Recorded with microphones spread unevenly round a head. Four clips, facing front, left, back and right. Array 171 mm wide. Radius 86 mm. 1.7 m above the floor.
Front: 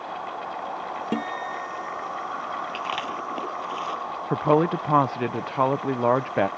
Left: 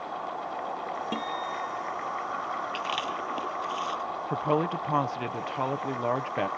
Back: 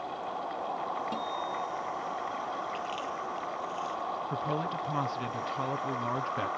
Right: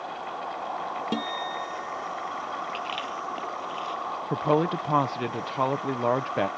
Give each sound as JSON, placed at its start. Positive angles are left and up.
{"t": 1.1, "sound": "a guitar", "azimuth_deg": -20}
{"t": 2.7, "sound": "chewing", "azimuth_deg": 10}
{"t": 4.3, "sound": "a woman speaking", "azimuth_deg": -15}